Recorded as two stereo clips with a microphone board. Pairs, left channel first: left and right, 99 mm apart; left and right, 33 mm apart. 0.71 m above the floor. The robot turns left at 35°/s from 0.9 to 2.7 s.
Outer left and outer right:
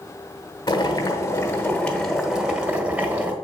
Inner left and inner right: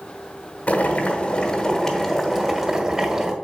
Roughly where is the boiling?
Ahead left.